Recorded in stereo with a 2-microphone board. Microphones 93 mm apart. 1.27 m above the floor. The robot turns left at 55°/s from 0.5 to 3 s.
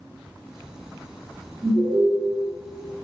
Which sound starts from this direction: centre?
An alarm, at 1.6 s.